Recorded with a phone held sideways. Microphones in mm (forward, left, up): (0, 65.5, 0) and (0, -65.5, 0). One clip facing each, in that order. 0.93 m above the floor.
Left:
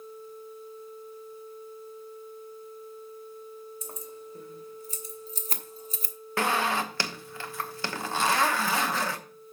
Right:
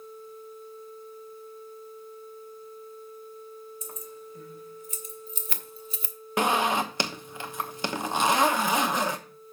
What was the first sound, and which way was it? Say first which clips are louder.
Keys jangling: even; 35° left (ahead or behind).